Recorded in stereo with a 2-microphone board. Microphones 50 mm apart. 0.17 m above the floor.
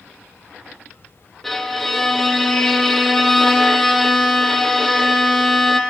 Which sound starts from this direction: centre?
A violin, at 1.4 s.